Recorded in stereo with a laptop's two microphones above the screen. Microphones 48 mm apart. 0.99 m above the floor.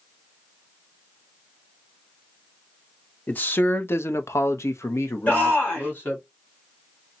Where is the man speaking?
35° left (ahead or behind), 1.1 m; by 6.2 s 45° left (ahead or behind), 1.4 m.